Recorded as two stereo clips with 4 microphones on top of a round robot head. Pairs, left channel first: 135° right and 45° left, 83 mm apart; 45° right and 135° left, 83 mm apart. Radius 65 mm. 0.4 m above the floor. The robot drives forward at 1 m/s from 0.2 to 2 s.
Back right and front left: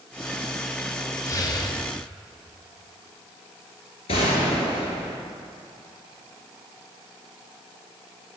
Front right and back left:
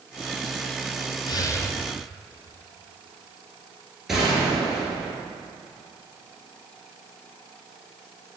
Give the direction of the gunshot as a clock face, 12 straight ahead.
5 o'clock.